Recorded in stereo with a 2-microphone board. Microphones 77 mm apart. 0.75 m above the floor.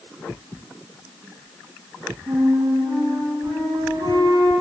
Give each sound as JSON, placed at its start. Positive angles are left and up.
{"t": 2.3, "sound": "a flute", "side_deg": -65, "distance_m": 4.0}